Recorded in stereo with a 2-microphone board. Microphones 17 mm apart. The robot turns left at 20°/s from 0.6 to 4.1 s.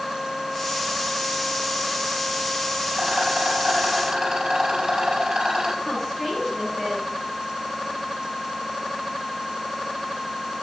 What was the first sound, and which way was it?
A rattle, 70° right (ahead or behind).